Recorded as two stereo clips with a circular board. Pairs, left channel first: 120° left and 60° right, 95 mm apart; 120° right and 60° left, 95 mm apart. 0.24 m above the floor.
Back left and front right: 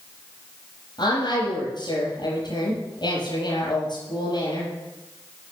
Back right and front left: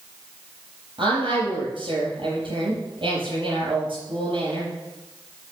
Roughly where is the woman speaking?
Left.